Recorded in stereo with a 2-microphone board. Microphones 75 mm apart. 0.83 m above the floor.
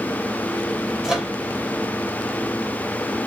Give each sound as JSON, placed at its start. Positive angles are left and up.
{"t": 1.0, "sound": "a microwave", "side_deg": -5, "distance_m": 1.2}